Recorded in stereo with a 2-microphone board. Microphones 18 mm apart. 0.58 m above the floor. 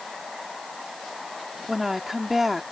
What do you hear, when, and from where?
1.7 s a woman speaking: 10° right (ahead or behind)